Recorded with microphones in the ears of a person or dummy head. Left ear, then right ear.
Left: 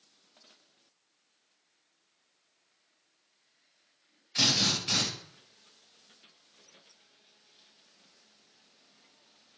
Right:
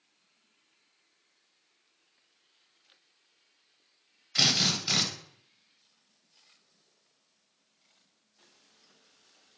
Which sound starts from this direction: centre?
A drill, at 4.3 s.